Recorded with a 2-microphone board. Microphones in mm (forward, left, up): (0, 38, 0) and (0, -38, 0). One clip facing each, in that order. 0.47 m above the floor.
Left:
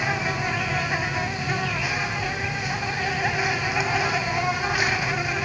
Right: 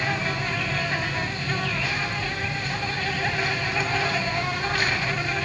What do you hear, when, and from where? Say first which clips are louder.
0.0 s an insect: left 1 dB; 10° left (ahead or behind), 1.0 m